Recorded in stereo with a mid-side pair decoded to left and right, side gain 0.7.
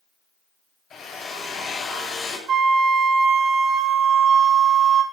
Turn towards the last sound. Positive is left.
turn(degrees=-40)